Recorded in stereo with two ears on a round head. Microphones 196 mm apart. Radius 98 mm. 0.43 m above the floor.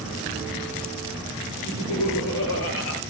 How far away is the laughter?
About 9 m.